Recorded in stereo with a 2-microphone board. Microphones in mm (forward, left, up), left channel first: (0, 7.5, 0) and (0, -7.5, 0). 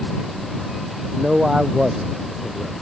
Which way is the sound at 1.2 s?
50° right (ahead or behind).